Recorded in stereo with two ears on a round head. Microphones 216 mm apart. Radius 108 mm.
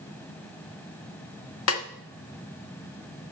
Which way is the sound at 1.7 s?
65° left (ahead or behind).